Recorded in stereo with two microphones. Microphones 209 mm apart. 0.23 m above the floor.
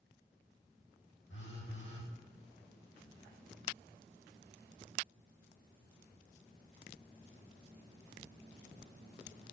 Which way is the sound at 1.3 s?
85° left.